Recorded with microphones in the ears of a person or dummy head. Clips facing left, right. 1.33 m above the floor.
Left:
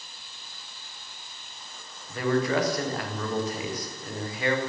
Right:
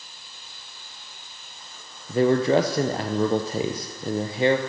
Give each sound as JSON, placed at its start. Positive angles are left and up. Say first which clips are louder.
{"t": 2.1, "sound": "a man speaking", "louder": "right 6 dB", "side_deg": -30, "distance_m": 0.6}